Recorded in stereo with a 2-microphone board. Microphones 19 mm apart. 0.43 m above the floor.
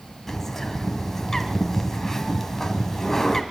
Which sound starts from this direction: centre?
A bird, at 0.3 s.